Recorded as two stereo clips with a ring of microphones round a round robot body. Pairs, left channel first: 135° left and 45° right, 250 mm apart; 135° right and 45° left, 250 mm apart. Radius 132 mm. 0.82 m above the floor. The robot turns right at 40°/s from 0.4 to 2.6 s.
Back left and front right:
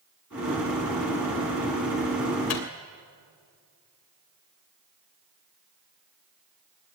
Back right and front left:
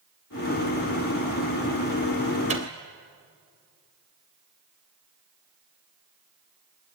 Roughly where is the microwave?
Left.